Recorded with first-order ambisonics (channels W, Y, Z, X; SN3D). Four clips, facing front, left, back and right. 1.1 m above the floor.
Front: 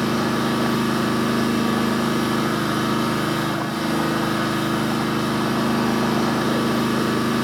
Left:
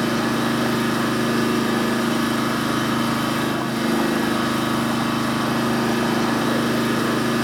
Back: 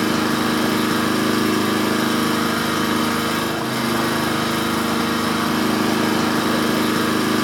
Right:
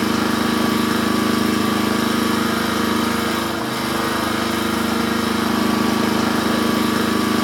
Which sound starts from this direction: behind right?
An engine running, at 0.0 s.